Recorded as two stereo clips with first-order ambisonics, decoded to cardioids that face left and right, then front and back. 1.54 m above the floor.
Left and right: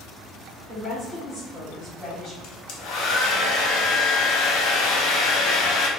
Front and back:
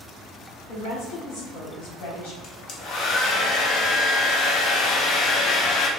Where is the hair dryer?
50° left, 0.6 m.